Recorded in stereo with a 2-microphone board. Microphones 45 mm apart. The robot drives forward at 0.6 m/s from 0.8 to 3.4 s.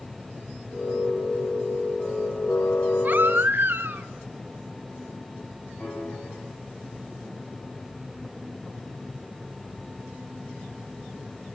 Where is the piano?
40° left (ahead or behind), 10 m.